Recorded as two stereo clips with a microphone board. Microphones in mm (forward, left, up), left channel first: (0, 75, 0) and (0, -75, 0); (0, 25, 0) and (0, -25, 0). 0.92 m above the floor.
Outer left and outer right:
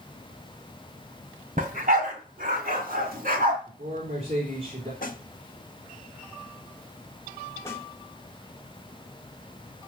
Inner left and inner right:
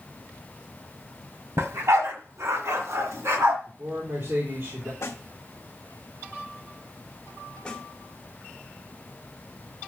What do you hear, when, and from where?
1.6 s a dog barking: 65° right (ahead or behind), 1.6 m; by 3.6 s 75° right (ahead or behind), 3.5 m
3.7 s a man speaking: 65° right (ahead or behind), 3 m
5.0 s a snare drum: 65° left (ahead or behind), 1.1 m
7.7 s a snare drum: 20° left (ahead or behind), 1.8 m